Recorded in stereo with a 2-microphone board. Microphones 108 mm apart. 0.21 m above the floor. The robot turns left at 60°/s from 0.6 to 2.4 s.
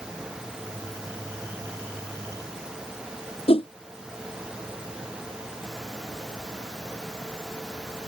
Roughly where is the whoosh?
Left.